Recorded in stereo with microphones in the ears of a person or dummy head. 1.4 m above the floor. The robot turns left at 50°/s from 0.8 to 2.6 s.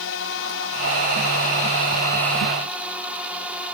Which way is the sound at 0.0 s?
90° left.